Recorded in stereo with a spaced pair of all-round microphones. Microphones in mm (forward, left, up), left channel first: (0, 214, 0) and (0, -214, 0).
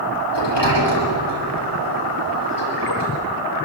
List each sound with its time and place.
0.3 s a sliding door: 70° left (ahead or behind), 9 m